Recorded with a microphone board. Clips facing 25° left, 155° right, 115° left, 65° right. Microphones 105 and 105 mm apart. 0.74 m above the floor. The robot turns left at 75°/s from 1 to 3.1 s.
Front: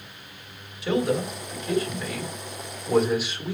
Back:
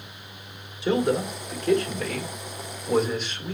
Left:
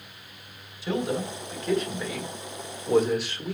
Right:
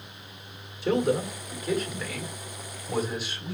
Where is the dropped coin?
I don't hear a dropped coin.